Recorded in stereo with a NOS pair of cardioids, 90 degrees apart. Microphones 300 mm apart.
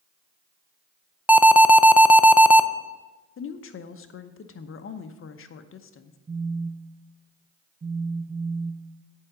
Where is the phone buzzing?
20° right, 0.6 m.